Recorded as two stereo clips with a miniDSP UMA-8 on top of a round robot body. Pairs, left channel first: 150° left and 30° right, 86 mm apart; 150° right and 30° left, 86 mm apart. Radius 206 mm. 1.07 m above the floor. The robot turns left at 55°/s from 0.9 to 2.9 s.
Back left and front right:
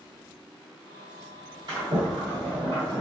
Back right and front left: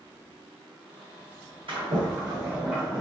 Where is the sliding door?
10° left, 1.6 m; by 3.0 s 55° right, 1.6 m.